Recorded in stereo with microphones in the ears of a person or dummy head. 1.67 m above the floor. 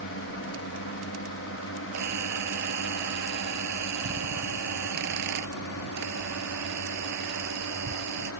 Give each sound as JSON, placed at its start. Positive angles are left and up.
{"t": 0.0, "sound": "a drone", "side_deg": 65}
{"t": 1.9, "sound": "a camera shutter", "side_deg": -55}